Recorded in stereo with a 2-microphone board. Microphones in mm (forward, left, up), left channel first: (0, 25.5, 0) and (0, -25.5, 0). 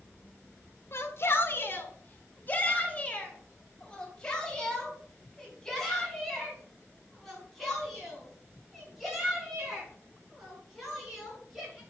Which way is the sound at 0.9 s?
55° left (ahead or behind).